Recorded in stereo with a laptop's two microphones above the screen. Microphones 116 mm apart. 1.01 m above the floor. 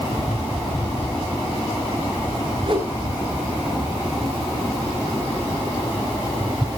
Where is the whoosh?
45° right (ahead or behind), 5.5 m.